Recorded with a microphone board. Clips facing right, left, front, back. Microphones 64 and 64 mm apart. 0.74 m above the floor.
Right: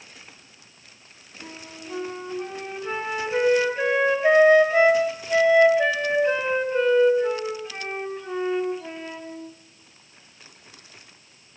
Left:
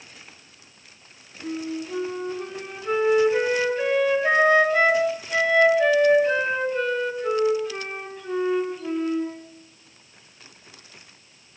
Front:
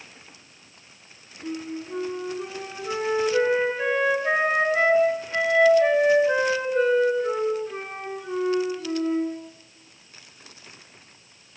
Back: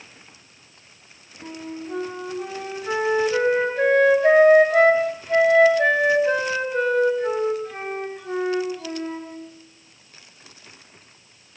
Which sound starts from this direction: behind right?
A flute, at 1.4 s.